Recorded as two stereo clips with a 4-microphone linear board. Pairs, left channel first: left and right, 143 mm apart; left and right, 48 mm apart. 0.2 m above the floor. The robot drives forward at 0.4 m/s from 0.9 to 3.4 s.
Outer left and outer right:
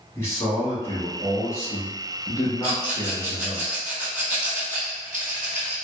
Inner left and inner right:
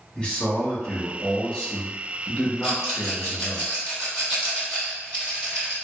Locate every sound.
0.1 s a man speaking: 20° left (ahead or behind), 1.1 m; by 3.6 s 15° left (ahead or behind), 1.3 m
2.6 s a rattle: 10° right (ahead or behind), 1.9 m